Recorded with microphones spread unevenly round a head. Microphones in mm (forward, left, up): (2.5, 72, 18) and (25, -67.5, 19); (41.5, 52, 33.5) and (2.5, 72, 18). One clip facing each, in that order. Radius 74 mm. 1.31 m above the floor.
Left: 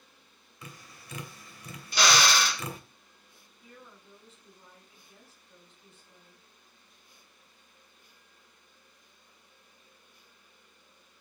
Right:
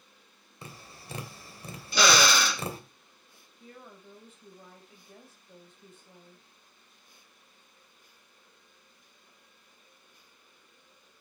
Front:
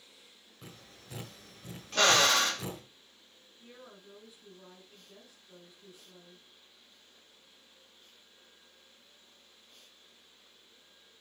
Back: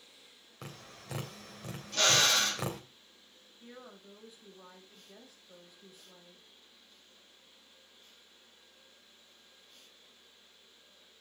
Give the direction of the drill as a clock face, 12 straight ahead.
3 o'clock.